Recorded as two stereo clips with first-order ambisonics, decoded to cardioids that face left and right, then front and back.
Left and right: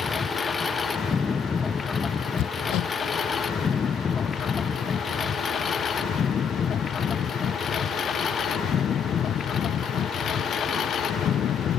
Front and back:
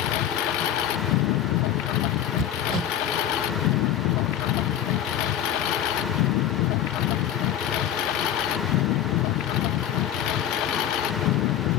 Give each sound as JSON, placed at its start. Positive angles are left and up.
{"t": 0.0, "sound": "a lawn mower", "azimuth_deg": 15}
{"t": 2.4, "sound": "hammering", "azimuth_deg": 125}